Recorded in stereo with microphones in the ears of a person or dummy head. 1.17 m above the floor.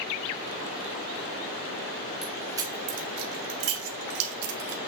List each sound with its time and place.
2.2 s keys jangling: 5° right (ahead or behind), 1.0 m; by 4.8 s 85° right, 2.0 m